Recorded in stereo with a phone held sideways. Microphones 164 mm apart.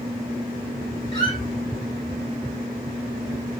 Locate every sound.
1.1 s a squeak: 25° left (ahead or behind), 1.9 m